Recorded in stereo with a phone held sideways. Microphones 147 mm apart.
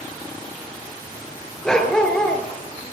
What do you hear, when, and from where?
1.6 s a dog barking: 5° left (ahead or behind), 3 m